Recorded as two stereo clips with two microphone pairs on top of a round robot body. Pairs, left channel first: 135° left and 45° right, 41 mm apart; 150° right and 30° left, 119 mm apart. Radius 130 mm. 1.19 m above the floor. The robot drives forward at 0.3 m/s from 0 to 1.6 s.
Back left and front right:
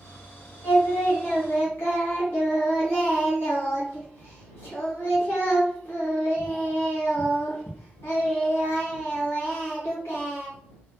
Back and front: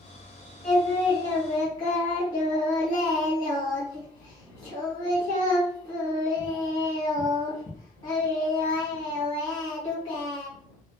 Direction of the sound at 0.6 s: 150° left.